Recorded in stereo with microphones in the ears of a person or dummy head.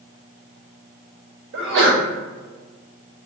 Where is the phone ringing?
I don't hear a phone ringing.